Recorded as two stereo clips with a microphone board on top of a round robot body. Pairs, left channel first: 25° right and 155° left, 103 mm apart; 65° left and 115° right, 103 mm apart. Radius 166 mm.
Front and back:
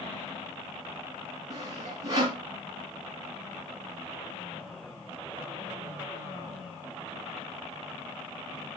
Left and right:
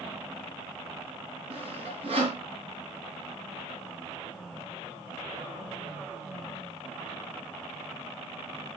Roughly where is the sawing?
Behind right.